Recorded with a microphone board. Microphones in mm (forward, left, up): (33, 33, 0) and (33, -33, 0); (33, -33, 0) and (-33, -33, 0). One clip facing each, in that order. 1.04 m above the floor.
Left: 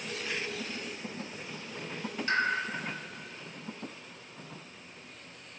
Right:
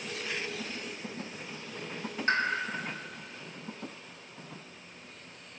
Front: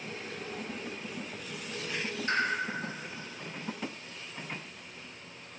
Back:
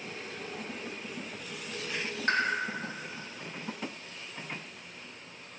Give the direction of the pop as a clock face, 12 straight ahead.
5 o'clock.